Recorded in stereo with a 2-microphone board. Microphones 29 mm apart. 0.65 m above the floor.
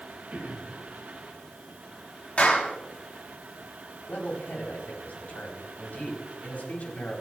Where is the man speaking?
65° left (ahead or behind), 4 m.